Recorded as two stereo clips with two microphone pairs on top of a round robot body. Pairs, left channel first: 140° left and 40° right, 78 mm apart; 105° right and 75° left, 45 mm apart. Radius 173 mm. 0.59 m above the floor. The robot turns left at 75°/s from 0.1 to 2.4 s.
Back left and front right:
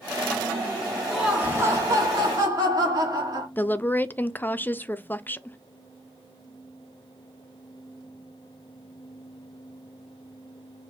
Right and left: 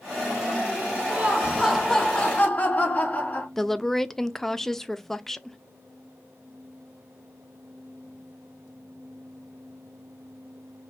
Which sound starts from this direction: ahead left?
Laughter, at 1.1 s.